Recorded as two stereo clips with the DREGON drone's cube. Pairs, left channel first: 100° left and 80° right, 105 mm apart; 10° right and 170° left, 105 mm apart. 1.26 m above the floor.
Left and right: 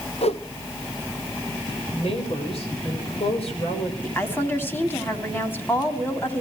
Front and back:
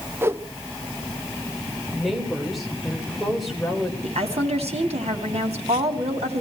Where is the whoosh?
105° left, 0.9 m.